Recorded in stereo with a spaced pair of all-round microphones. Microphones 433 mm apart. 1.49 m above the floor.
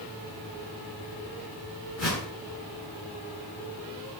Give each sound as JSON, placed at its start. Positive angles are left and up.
{"t": 2.0, "sound": "a whoosh", "side_deg": 80, "distance_m": 2.0}